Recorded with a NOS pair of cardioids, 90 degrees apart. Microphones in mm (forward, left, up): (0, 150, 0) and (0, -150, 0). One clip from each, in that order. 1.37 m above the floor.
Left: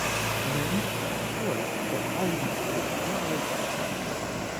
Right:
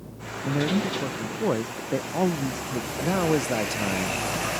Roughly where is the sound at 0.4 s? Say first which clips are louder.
Right 2 dB; ahead right.